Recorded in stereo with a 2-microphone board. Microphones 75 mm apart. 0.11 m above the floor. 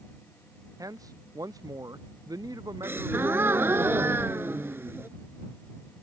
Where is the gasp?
30° right (ahead or behind).